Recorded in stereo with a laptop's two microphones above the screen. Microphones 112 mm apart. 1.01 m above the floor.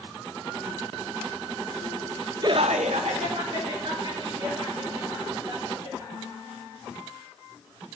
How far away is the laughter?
About 0.6 m.